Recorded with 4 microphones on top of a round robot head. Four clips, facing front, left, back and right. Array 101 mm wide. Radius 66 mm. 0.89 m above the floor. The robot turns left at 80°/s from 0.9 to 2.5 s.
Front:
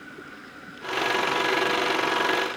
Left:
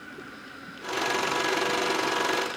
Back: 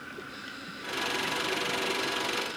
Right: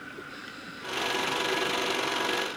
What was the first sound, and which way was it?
Only background noise.